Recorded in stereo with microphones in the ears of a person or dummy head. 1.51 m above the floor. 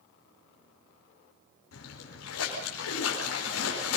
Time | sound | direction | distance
1.7 | a splash | 90° left | 5 m